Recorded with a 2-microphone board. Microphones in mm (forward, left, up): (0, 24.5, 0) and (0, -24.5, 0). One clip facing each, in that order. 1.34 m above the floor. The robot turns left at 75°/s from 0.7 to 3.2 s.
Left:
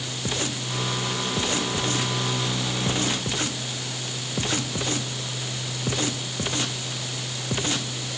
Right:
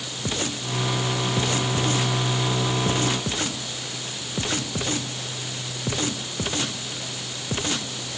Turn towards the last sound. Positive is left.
No sound to turn to.